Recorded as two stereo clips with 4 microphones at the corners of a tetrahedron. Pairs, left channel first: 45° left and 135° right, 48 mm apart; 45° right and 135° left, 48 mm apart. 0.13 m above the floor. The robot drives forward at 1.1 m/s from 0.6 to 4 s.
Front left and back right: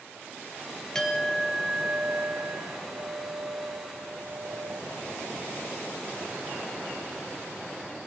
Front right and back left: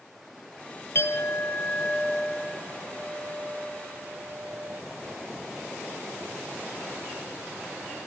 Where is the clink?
30° right, 1.4 m; by 4.8 s 165° right, 2.5 m.